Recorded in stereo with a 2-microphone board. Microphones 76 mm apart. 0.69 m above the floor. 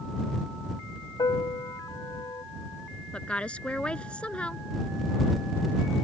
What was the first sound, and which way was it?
A piano, 70° left (ahead or behind).